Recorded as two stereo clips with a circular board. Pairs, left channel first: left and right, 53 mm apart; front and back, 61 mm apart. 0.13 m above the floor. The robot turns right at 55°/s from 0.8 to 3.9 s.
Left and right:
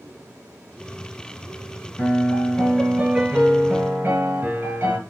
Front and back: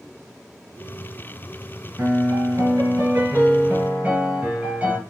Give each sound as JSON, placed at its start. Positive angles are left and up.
{"t": 2.0, "sound": "a piano", "azimuth_deg": 130, "distance_m": 2.5}